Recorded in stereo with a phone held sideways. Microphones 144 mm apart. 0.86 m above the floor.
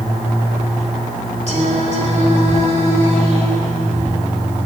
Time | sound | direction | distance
1.5 | singing | 55° right (ahead or behind) | 2.5 m